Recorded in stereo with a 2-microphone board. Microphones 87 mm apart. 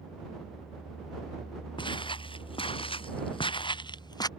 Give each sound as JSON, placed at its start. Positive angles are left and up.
{"t": 1.8, "sound": "footsteps", "side_deg": 70}